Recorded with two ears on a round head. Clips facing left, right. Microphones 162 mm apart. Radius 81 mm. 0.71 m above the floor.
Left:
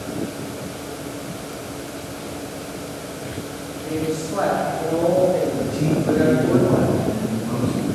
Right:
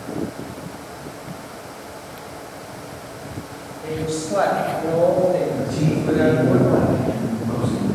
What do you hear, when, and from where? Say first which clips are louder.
3.8 s a woman speaking: left 1 dB; 60° right (ahead or behind), 3.5 m; by 6.6 s 40° right (ahead or behind), 4.5 m
5.6 s a man speaking: even; 25° right (ahead or behind), 6 m